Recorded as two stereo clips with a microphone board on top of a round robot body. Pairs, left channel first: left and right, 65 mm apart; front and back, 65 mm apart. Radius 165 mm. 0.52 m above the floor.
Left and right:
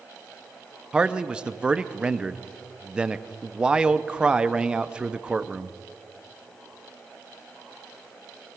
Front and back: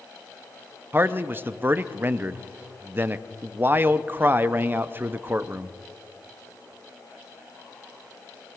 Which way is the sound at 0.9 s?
155° right.